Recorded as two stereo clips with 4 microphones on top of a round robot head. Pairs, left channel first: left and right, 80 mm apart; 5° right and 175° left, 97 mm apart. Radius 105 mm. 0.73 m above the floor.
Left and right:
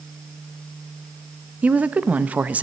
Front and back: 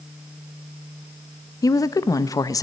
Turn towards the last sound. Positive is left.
turn(degrees=-25)